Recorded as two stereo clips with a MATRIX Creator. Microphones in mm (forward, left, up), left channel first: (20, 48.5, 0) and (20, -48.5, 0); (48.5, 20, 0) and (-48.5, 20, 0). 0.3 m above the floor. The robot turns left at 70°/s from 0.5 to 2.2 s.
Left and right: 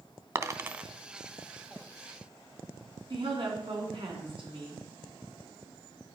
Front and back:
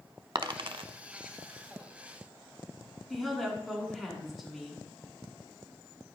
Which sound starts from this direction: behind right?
A dropped coin, at 0.3 s.